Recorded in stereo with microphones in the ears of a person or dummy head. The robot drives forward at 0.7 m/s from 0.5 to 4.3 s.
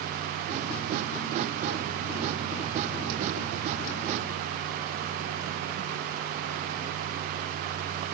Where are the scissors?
No scissors in this recording.